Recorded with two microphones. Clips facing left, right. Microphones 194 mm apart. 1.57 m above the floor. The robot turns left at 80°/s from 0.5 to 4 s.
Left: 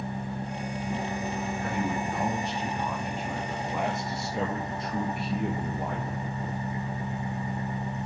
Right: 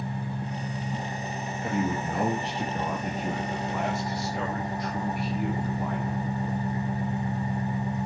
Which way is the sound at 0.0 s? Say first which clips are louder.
Even; 140° left.